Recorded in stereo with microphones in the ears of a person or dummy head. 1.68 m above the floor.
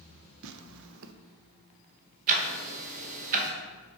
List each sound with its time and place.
0.4 s tearing paper: 70° right (ahead or behind), 0.5 m
2.3 s ticking: 45° right (ahead or behind), 0.9 m